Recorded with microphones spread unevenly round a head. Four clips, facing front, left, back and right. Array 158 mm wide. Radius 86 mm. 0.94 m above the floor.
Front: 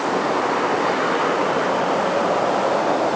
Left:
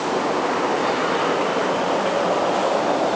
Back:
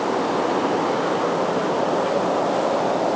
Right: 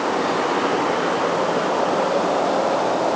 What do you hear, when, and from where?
Only background noise.